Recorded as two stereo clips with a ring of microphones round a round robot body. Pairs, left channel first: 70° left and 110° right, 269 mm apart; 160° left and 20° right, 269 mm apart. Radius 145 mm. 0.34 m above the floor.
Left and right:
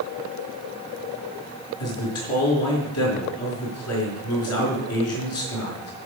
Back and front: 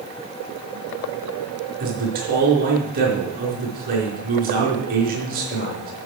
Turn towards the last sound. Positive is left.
turn(degrees=35)